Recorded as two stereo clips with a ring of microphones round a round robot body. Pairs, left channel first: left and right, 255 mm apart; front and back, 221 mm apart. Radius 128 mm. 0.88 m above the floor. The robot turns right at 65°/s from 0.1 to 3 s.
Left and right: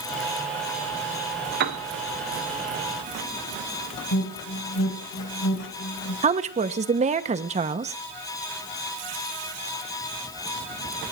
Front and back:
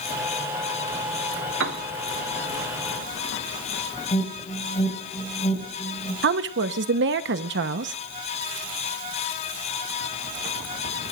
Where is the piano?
140° right, 1.1 m; by 1.8 s 125° right, 1.1 m.